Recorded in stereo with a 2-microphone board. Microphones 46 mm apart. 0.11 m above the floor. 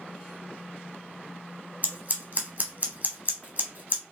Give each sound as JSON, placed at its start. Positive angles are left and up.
{"t": 1.8, "sound": "scissors", "side_deg": -40, "distance_m": 0.9}